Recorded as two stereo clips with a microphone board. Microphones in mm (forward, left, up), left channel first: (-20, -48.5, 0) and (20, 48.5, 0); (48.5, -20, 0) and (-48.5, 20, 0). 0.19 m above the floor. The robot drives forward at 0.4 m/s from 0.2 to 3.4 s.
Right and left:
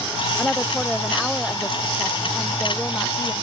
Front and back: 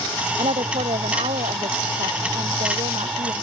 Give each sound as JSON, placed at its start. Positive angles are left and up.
{"t": 0.4, "sound": "a woman speaking", "azimuth_deg": 160}